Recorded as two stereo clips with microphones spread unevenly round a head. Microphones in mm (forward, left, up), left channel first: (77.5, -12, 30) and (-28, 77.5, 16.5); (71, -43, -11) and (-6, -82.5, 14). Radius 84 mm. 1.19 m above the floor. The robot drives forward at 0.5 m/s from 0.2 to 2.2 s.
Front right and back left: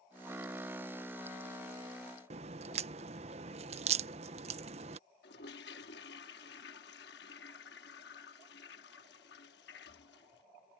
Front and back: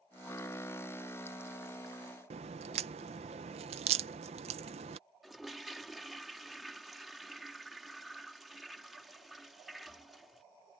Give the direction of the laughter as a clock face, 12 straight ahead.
I don't hear laughter.